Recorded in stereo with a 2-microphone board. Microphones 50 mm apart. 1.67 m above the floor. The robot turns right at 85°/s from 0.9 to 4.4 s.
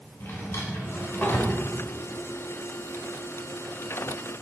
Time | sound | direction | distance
0.2 | a drawer | 60° left (ahead or behind) | 3 m